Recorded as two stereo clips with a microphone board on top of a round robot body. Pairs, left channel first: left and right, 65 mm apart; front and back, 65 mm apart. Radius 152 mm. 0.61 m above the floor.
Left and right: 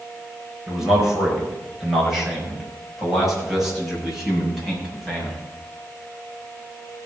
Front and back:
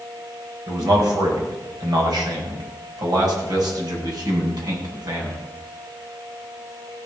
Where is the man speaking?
175° right, 4.5 m; by 5.4 s straight behind, 7 m.